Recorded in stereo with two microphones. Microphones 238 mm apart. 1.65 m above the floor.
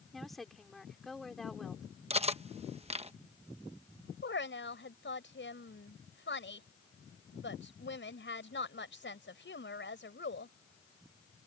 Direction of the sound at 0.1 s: Centre (ahead or behind).